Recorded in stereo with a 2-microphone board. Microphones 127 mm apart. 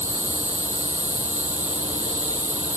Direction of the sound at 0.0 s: 70° right (ahead or behind).